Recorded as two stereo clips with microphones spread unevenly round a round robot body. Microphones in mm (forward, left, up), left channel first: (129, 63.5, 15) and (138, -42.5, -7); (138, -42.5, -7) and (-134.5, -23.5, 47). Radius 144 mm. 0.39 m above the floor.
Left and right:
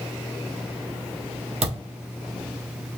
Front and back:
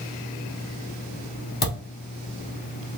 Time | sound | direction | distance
1.6 | a thud | 60° right | 1.7 m